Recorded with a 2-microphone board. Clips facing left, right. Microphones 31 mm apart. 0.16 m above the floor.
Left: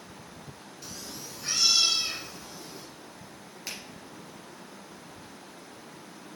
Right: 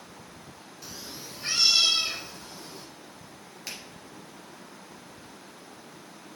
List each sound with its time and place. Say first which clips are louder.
0.8 s a cat meowing: even; 5° right (ahead or behind), 0.6 m; by 2.9 s 50° right (ahead or behind), 3 m
3.7 s a finger snap: even; 5° left (ahead or behind), 2.5 m